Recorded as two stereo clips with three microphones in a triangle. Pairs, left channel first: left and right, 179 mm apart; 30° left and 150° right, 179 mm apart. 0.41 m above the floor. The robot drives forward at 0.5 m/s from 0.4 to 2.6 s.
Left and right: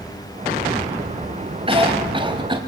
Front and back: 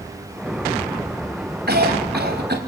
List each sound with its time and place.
1.7 s a cough: 145° right, 2.5 m; by 2.6 s 150° right, 3 m